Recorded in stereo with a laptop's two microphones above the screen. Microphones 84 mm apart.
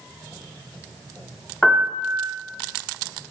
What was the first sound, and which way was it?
A piano, 15° left (ahead or behind).